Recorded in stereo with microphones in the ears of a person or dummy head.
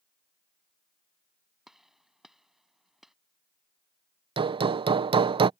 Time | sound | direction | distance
1.7 | a gunshot | centre (ahead or behind) | ?
4.4 | hammering | 30° right (ahead or behind) | ?